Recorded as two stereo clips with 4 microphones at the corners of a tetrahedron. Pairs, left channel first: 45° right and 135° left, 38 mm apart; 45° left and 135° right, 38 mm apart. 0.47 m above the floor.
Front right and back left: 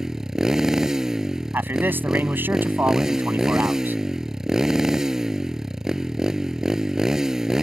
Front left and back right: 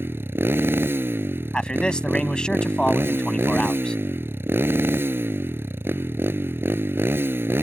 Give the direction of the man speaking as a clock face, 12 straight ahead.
8 o'clock.